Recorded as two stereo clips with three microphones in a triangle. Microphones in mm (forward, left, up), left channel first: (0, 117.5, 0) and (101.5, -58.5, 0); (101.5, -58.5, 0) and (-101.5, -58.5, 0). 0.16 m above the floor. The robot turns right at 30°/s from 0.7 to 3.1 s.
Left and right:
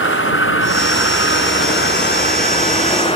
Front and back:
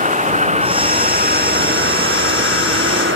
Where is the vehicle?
130° left; by 3.2 s straight behind.